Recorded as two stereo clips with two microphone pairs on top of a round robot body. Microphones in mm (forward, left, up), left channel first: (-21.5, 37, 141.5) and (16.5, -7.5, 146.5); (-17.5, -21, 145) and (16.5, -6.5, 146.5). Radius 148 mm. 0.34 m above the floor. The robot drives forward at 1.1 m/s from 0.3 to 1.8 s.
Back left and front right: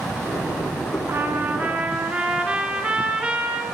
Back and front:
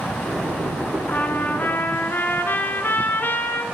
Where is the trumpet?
105° right, 2 m; by 3.6 s 125° right, 2.5 m.